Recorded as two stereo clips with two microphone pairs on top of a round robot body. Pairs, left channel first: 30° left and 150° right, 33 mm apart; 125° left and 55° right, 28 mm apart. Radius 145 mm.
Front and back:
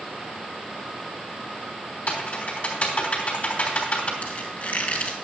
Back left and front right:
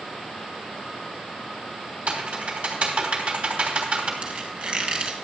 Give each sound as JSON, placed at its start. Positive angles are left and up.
{"t": 2.1, "sound": "typing on a keyboard", "azimuth_deg": -15, "distance_m": 3.0}
{"t": 4.2, "sound": "a squeak", "azimuth_deg": -5, "distance_m": 3.0}